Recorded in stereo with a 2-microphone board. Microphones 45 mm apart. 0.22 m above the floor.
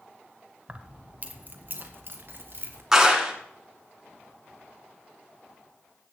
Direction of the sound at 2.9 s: 10° right (ahead or behind).